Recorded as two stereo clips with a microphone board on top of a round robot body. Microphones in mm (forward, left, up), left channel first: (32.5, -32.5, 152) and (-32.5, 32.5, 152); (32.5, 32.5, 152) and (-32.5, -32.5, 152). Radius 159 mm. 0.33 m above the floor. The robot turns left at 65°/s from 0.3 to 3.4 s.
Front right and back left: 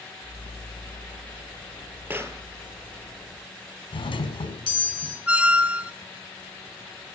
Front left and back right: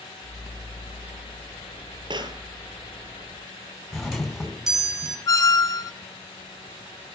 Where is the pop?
155° right, 3 m; by 2.4 s 175° right, 3 m.